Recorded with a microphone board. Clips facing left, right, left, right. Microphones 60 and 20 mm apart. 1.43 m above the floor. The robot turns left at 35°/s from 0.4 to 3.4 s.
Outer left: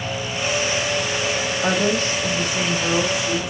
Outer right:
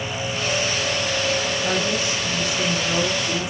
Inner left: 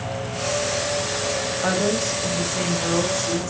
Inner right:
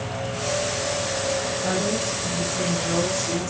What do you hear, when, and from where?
1.6 s a woman speaking: 60° left, 1.7 m; by 3.5 s straight ahead, 1.7 m